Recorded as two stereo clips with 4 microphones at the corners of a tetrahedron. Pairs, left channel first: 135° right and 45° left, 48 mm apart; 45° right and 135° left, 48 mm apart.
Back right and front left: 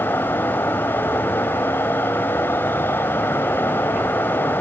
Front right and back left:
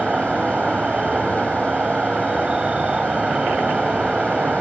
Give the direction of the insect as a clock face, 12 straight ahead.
5 o'clock.